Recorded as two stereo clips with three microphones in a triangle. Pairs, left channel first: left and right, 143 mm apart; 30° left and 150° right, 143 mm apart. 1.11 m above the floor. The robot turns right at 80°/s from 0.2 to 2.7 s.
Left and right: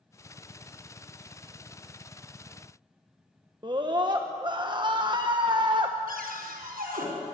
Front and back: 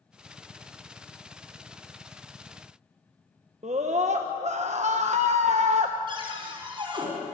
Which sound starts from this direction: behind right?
A scream, at 3.6 s.